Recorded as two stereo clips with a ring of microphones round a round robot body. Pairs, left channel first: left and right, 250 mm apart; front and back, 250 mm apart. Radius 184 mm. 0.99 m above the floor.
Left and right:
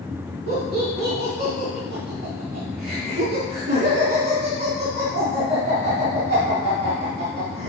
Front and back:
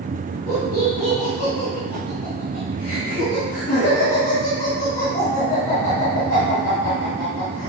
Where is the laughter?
75° right, 1.8 m.